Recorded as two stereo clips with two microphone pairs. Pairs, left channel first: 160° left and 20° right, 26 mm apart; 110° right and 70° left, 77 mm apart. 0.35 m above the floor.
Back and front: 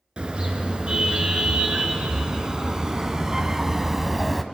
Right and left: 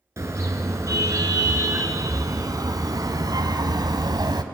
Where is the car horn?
20° left, 3 m; by 4.4 s 65° left, 1.4 m.